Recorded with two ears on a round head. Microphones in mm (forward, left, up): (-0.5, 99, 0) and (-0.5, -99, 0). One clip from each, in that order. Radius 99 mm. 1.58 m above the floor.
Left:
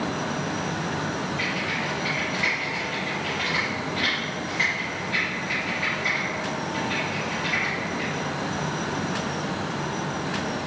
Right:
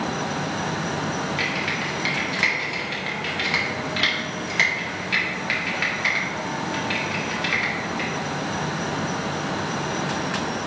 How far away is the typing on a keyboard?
About 1.8 m.